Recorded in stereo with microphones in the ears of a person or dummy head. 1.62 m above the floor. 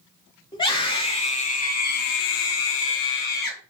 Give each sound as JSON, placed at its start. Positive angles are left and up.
{"t": 0.5, "sound": "a scream", "side_deg": 20, "distance_m": 1.2}